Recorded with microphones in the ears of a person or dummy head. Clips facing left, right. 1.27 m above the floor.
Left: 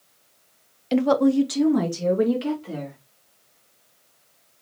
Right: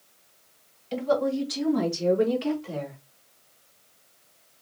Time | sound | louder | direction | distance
0.9 | a woman speaking | left 7 dB | 85° left | 0.6 m